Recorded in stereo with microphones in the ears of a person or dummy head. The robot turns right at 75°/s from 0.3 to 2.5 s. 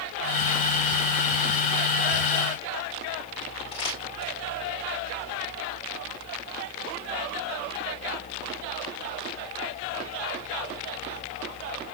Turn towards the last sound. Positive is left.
turn(degrees=25)  # may be behind; listen again after turning